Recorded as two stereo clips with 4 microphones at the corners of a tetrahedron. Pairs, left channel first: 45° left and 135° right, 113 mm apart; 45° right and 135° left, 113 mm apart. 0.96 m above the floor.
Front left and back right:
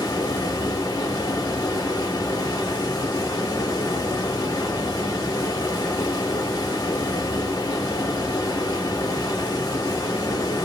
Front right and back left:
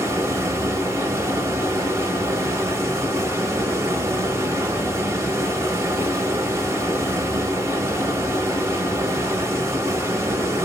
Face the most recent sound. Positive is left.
turn(degrees=80)